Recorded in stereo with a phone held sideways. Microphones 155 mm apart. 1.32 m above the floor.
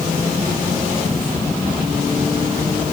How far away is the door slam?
No door slam in this recording.